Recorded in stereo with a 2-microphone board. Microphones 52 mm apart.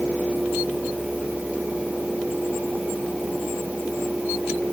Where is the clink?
I don't hear a clink.